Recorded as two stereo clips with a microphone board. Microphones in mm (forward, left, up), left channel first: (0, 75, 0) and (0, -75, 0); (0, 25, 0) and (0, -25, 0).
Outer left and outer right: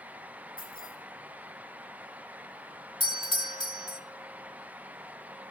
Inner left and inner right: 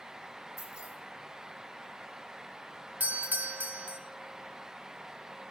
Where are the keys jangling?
70° left (ahead or behind), 9.5 m.